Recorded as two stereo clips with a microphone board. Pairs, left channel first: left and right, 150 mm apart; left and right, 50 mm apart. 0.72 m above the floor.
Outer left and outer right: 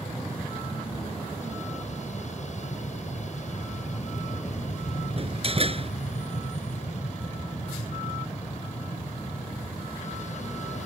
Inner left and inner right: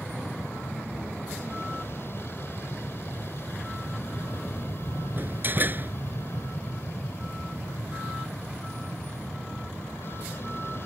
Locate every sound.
0.0 s an aircraft: 50° left (ahead or behind)
5.2 s a door slam: 40° right (ahead or behind)